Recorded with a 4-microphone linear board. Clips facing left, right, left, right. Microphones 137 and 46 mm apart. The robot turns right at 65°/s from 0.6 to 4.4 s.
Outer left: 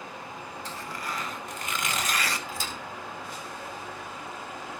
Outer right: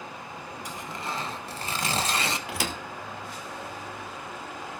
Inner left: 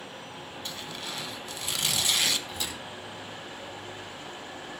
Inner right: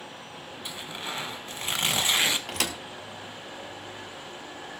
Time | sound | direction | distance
0.7 | tearing paper | 155° right | 1.1 m
2.5 | a thud | 75° right (ahead or behind) | 1.3 m